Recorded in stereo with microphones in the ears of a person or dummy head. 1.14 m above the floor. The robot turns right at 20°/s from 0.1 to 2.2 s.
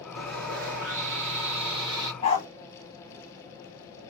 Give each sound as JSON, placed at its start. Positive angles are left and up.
{"t": 0.2, "sound": "sawing", "azimuth_deg": -65, "distance_m": 1.5}
{"t": 2.2, "sound": "a dog barking", "side_deg": 15, "distance_m": 1.1}